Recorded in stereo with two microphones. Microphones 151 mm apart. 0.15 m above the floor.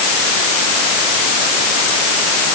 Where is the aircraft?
I don't hear an aircraft.